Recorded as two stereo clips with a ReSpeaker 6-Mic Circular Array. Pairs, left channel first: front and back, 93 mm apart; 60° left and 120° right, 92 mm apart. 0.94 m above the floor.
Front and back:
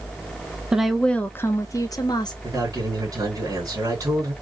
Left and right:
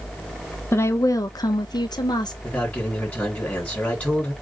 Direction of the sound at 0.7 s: 105° left.